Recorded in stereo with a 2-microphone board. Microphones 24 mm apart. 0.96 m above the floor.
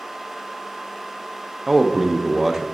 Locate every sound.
1.7 s a man speaking: 15° right (ahead or behind), 0.6 m